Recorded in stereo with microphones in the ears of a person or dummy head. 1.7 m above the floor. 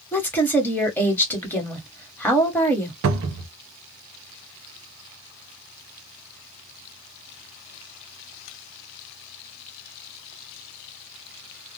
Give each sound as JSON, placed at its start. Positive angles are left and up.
{"t": 0.1, "sound": "a woman speaking", "side_deg": 15, "distance_m": 1.2}
{"t": 3.0, "sound": "a cupboard door", "side_deg": -70, "distance_m": 0.6}